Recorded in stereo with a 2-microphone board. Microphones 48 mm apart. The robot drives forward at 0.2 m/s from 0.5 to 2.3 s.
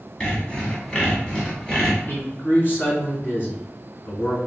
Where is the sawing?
20° left (ahead or behind), 1.6 m; by 2.0 s 15° left (ahead or behind), 1.8 m.